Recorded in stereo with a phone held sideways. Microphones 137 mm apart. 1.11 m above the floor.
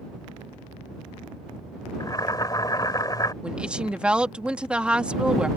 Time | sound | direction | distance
2.0 | boiling | 30° left (ahead or behind) | ?
3.4 | a woman speaking | 10° right (ahead or behind) | ?